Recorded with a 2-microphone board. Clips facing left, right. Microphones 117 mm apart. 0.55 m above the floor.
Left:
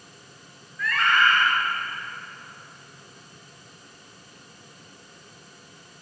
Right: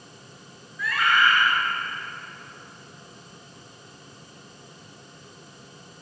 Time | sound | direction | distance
0.8 | a scream | 5° right (ahead or behind) | 7.5 m